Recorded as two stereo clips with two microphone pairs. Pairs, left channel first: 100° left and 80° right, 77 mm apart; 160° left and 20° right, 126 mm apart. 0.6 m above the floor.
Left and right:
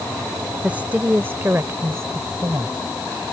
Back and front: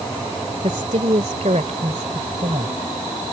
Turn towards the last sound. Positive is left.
turn(degrees=-35)